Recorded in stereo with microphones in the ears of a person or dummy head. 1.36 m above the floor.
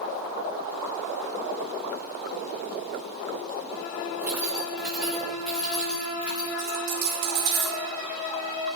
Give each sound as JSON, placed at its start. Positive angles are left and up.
{"t": 4.2, "sound": "keys jangling", "side_deg": -10, "distance_m": 1.7}
{"t": 6.6, "sound": "a dropped coin", "side_deg": -70, "distance_m": 4.0}